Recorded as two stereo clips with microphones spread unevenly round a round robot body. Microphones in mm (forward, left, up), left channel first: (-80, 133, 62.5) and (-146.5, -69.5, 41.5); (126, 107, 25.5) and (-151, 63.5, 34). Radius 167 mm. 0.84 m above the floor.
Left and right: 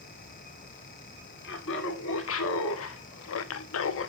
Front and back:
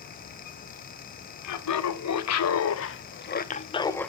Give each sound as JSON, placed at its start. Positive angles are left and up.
{"t": 1.4, "sound": "laughter", "azimuth_deg": 25, "distance_m": 2.0}